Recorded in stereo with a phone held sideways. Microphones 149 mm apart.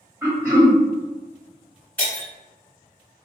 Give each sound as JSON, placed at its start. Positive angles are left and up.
{"t": 0.2, "sound": "throat clearing", "side_deg": -10, "distance_m": 1.7}
{"t": 2.0, "sound": "breaking glass", "side_deg": 10, "distance_m": 1.5}